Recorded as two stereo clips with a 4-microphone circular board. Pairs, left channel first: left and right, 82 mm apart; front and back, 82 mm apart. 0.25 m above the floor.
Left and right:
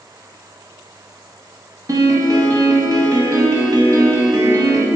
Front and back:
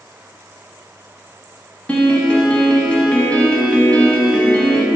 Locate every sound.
1.9 s a piano: 70° right, 0.5 m